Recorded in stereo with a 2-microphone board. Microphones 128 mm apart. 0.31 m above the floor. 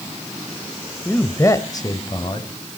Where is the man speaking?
10° left (ahead or behind), 1.1 m; by 2.5 s 40° left (ahead or behind), 1.9 m.